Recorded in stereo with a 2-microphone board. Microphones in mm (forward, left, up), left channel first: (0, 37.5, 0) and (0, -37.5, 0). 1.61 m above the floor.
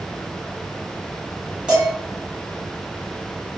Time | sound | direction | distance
1.7 | dishes clattering | 15° right (ahead or behind) | 1.8 m